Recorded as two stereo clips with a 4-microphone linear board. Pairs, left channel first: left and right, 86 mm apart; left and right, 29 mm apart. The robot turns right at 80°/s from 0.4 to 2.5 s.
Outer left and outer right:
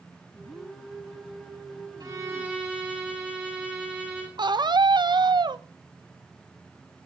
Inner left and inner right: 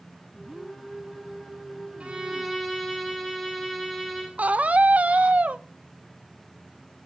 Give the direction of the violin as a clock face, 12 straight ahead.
2 o'clock.